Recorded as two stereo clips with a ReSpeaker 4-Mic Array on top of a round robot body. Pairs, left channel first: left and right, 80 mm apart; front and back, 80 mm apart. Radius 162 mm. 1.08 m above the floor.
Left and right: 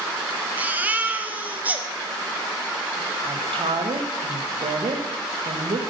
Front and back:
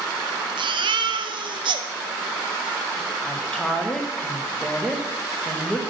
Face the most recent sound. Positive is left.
turn(degrees=-80)